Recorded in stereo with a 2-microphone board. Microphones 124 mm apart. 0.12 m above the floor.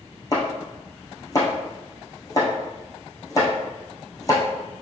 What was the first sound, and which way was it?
Chopping, 25° left (ahead or behind).